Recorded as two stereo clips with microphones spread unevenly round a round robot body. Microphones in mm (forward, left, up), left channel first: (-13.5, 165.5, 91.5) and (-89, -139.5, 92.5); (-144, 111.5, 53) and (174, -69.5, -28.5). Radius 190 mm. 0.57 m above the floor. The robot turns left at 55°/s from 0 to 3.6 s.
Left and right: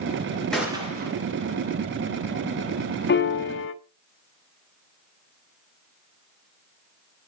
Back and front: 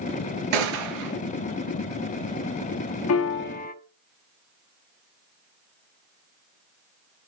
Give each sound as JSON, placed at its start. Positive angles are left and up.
{"t": 0.5, "sound": "a gunshot", "azimuth_deg": -10, "distance_m": 2.5}
{"t": 3.1, "sound": "a piano", "azimuth_deg": 105, "distance_m": 1.2}